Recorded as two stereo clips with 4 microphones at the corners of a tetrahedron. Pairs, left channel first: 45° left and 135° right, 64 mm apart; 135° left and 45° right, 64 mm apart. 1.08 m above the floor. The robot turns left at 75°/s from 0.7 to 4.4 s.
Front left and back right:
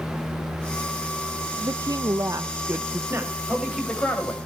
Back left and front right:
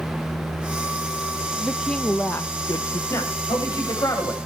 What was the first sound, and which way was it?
A woman speaking, 110° right.